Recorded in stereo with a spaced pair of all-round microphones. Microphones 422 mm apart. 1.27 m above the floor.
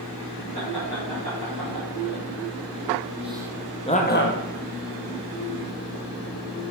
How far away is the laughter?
About 2.5 m.